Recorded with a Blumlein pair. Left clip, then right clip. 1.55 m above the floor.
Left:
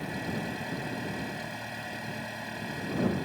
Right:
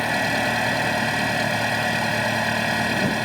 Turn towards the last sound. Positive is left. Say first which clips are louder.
# right 14 dB
turn(degrees=-55)